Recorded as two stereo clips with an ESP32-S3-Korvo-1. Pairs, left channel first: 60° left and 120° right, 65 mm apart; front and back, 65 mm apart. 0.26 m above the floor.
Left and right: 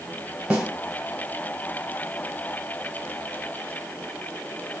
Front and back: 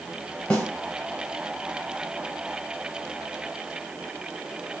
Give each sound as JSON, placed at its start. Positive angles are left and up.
{"t": 0.5, "sound": "a snare drum", "azimuth_deg": -55, "distance_m": 1.1}